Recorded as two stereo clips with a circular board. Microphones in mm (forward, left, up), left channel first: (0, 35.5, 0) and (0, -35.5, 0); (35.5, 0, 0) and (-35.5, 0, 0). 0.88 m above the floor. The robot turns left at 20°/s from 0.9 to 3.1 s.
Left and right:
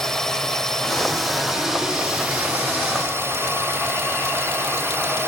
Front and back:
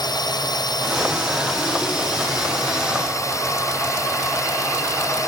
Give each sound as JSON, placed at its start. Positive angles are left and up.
{"t": 0.0, "sound": "a drone", "azimuth_deg": 5}